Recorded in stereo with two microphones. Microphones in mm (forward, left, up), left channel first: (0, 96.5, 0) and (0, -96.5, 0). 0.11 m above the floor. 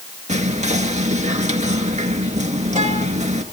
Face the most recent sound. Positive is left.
turn(degrees=-35)  # may be behind; listen again after turning